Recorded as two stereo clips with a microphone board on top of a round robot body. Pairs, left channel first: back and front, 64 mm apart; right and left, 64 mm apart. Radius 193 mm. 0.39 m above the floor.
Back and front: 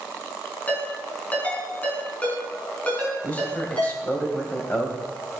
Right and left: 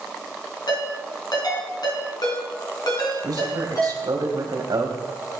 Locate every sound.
0.7 s a ringtone: 110° right, 5 m
3.2 s a man speaking: 115° left, 3 m